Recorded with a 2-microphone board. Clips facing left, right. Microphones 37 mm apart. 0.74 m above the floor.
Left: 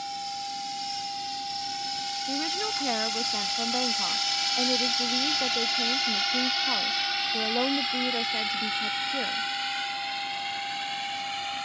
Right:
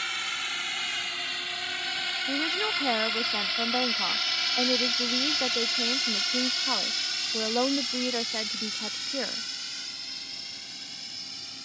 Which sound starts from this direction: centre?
A woman speaking, at 2.3 s.